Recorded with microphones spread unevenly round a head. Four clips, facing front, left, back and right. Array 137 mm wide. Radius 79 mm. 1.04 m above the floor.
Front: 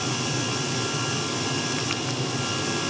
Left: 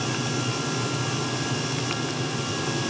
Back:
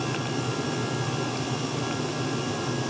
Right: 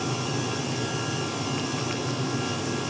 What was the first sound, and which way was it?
Only background noise.